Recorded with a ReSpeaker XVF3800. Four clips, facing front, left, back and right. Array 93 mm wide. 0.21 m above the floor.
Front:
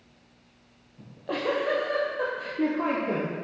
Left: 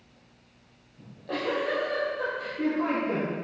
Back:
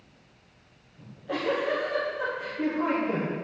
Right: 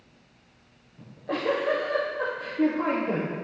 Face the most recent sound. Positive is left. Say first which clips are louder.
# right 2 dB, front 1 dB
turn(degrees=-30)